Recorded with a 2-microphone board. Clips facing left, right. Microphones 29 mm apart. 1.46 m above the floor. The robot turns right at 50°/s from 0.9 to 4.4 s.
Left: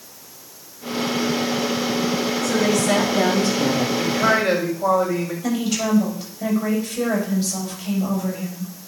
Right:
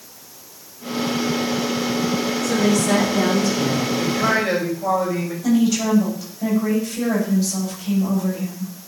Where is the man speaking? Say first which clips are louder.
Left 1 dB; 40° left (ahead or behind), 5.5 m; by 5.3 s 60° left (ahead or behind), 5.5 m.